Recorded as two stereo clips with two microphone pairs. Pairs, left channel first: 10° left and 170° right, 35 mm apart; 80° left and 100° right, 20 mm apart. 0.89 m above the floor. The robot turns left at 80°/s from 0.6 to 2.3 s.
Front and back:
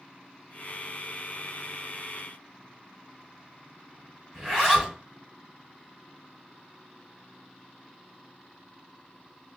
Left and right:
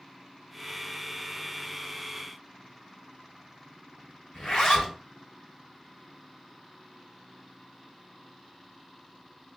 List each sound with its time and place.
4.3 s a zipper: 100° left, 3 m